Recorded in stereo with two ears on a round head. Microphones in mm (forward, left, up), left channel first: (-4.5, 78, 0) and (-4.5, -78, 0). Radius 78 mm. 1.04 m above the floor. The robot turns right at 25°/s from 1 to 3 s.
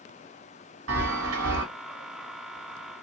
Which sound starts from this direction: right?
A chime, at 0.9 s.